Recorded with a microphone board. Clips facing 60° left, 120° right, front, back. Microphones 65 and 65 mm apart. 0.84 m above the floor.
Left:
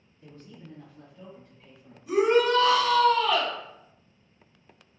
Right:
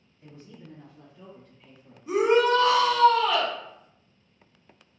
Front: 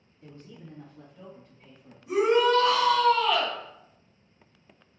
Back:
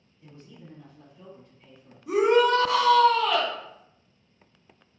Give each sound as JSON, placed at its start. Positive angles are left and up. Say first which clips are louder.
{"t": 0.2, "sound": "a man speaking", "louder": "even, front 1 dB", "azimuth_deg": -60, "distance_m": 1.8}
{"t": 2.1, "sound": "a shout", "louder": "right 1 dB, back 2 dB", "azimuth_deg": -175, "distance_m": 1.9}